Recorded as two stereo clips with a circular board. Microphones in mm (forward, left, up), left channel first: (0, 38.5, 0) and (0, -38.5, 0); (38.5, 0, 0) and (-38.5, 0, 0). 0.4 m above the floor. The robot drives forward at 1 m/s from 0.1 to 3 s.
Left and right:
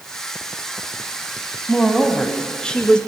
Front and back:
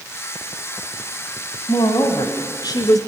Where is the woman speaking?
5° left, 2.5 m; by 3.0 s 15° left, 1.3 m.